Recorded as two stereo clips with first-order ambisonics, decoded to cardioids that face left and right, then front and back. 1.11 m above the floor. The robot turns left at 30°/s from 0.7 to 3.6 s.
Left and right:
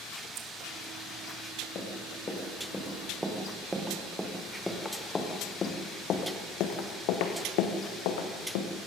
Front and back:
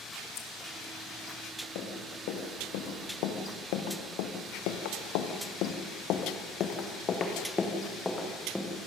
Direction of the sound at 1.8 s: 30° left.